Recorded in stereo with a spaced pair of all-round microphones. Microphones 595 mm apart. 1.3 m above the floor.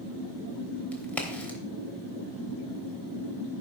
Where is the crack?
Centre (ahead or behind), 3.5 m.